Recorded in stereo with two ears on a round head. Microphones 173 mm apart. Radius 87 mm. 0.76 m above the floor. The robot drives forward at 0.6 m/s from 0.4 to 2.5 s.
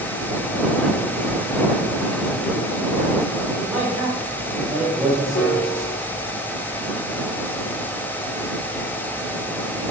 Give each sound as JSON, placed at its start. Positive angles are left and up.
{"t": 3.6, "sound": "a man speaking", "side_deg": -10, "distance_m": 2.5}
{"t": 5.3, "sound": "a piano", "side_deg": 50, "distance_m": 2.5}